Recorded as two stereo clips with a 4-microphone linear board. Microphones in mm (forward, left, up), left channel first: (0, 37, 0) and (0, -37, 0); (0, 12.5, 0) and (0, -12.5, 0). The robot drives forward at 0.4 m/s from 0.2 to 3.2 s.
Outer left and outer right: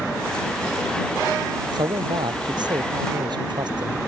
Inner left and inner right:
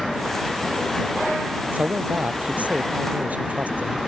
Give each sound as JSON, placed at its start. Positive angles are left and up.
{"t": 1.7, "sound": "a man speaking", "side_deg": -80}